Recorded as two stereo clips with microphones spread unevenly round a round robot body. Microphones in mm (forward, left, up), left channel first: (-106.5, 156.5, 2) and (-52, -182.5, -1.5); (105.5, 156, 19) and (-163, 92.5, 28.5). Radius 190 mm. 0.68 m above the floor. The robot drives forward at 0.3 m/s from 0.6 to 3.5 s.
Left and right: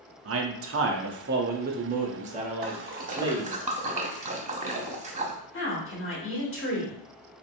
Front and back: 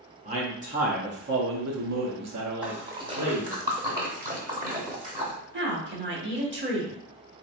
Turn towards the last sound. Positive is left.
turn(degrees=150)